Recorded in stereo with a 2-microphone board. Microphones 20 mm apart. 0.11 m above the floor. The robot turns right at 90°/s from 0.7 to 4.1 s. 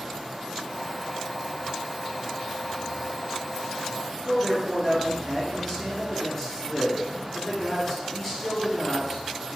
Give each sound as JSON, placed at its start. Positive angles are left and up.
{"t": 4.2, "sound": "a man speaking", "side_deg": 15, "distance_m": 1.7}